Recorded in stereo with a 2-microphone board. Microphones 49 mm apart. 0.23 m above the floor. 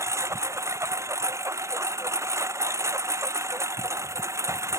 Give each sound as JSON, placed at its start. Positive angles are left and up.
{"t": 0.0, "sound": "a lawn mower", "side_deg": -75}